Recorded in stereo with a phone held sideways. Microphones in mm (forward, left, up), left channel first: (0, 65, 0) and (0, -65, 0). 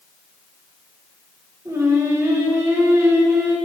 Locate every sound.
1.6 s singing: 20° right (ahead or behind), 1.1 m